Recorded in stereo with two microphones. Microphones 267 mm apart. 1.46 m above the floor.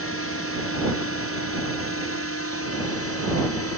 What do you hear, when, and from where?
0.0 s a drone: 55° left (ahead or behind); by 3.8 s 60° left (ahead or behind)